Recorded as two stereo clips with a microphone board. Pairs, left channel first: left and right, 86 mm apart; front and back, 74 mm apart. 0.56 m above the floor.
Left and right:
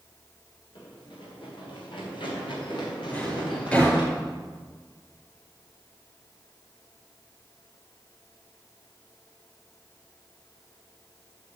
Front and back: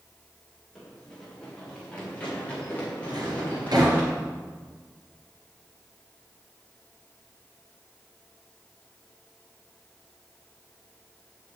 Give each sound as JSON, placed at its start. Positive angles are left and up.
{"t": 0.8, "sound": "running footsteps", "azimuth_deg": 80, "distance_m": 6.0}
{"t": 3.1, "sound": "a drawer", "azimuth_deg": 160, "distance_m": 5.0}